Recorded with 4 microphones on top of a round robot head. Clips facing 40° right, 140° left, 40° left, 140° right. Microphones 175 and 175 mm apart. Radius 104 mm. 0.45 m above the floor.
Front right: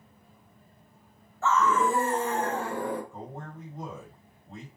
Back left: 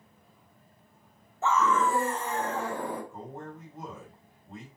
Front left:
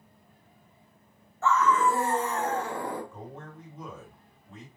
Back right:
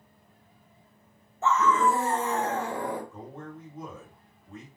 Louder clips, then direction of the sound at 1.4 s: Front right 1 dB, even; straight behind.